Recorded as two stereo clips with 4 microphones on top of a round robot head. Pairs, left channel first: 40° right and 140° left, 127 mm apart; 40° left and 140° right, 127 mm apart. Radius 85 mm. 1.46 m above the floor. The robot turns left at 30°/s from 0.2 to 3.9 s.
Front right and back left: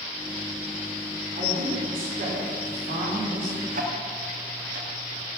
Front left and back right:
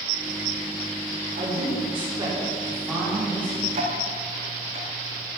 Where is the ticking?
175° left, 1.5 m; by 5.3 s 170° left, 1.5 m.